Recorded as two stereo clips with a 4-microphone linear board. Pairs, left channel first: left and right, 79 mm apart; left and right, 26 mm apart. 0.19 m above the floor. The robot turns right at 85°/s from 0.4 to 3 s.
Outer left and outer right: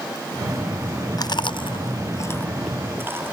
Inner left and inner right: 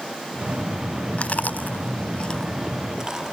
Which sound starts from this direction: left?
Chewing, at 1.2 s.